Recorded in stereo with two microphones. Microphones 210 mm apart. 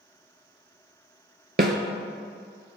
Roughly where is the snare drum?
Right.